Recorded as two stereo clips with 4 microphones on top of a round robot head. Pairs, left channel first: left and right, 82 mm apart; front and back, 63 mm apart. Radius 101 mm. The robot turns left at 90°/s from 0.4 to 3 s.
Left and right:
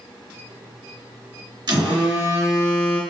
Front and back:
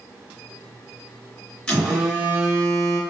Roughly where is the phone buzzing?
Right.